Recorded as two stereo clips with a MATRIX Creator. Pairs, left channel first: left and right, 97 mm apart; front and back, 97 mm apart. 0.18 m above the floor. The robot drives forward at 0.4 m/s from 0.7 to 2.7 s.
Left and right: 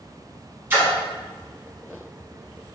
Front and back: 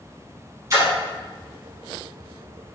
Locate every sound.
0.7 s a splash: 145° right, 0.9 m; by 0.9 s 150° right, 1.0 m